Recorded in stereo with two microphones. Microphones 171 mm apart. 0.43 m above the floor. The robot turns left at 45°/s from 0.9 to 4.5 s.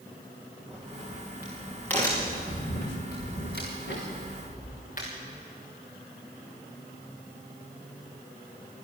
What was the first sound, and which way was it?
A crack, 35° right (ahead or behind).